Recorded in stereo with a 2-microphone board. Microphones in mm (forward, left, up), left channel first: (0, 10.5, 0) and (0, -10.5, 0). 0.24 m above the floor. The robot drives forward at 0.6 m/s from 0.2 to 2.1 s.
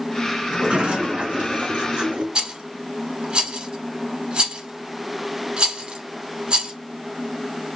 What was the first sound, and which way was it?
A sliding door, 65° right (ahead or behind).